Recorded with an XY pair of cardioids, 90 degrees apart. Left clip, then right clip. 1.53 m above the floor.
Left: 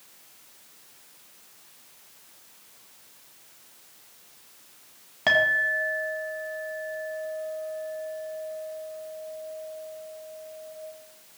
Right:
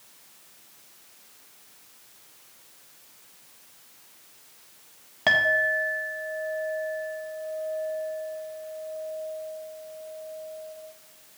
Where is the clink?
10° right, 1.7 m.